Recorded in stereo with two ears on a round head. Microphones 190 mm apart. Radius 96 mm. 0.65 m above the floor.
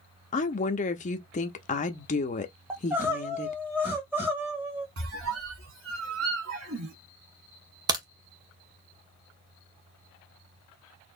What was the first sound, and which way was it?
A woman speaking, 35° left (ahead or behind).